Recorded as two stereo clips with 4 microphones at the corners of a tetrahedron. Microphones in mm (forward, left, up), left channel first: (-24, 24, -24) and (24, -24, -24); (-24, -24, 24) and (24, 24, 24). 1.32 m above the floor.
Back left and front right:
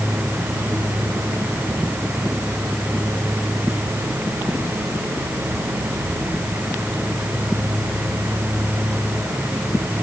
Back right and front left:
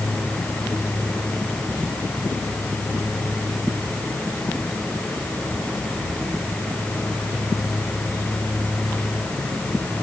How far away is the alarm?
I don't hear an alarm.